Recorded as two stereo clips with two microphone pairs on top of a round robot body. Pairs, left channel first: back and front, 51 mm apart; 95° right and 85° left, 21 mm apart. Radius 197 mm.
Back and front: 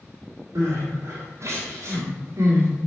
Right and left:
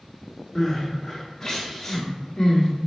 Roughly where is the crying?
Ahead right.